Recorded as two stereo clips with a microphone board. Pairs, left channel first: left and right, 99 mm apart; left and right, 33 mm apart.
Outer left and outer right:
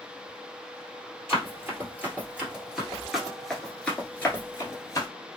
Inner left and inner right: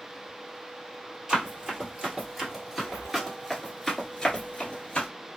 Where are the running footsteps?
25° right (ahead or behind), 1.8 m; by 5.1 s 35° left (ahead or behind), 1.3 m.